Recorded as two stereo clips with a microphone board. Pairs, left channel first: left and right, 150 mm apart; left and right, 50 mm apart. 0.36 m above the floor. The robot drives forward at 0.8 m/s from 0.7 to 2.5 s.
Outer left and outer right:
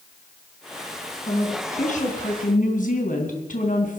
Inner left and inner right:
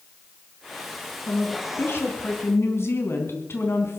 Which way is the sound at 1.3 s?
50° left (ahead or behind).